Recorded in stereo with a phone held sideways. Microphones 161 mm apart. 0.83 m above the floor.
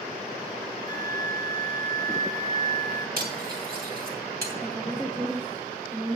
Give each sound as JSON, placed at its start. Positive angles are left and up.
{"t": 0.9, "sound": "a flute", "side_deg": 25, "distance_m": 1.8}
{"t": 3.2, "sound": "cutlery clinking", "side_deg": -70, "distance_m": 3.0}
{"t": 4.6, "sound": "a woman speaking", "side_deg": -10, "distance_m": 1.7}